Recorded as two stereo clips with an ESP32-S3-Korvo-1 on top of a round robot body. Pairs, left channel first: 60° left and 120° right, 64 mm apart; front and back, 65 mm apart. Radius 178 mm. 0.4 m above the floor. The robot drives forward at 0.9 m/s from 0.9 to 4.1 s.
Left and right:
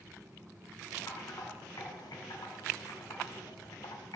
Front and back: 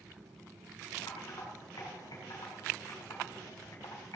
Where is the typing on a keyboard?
20° left, 6.5 m; by 4.2 s 40° left, 4 m.